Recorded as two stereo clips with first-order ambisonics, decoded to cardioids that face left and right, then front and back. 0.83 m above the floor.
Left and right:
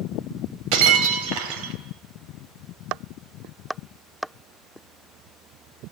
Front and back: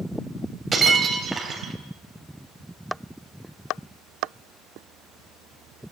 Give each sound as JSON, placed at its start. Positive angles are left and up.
{"t": 0.7, "sound": "breaking glass", "azimuth_deg": -110, "distance_m": 3.0}